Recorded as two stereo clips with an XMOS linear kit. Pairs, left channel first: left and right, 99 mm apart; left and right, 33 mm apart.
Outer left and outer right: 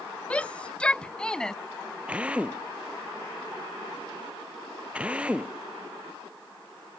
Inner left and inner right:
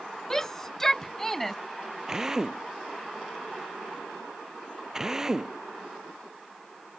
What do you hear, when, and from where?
0.3 s a shout: 15° left (ahead or behind); by 1.6 s 5° left (ahead or behind)
2.1 s a drill: 15° right (ahead or behind)